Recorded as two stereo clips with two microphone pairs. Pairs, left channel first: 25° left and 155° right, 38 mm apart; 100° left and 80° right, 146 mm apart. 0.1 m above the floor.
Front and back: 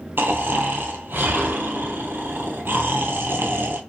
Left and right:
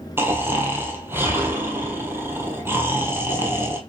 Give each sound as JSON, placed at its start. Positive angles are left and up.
{"t": 0.2, "sound": "snoring", "azimuth_deg": -150, "distance_m": 0.9}